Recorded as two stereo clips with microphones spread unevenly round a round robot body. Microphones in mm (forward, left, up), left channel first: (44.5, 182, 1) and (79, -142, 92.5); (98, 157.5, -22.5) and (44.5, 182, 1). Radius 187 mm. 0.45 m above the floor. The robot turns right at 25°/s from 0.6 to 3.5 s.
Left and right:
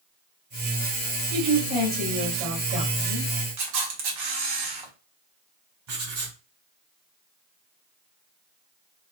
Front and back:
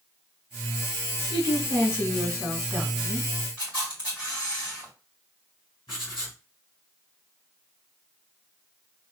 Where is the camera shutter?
75° right, 1.4 m.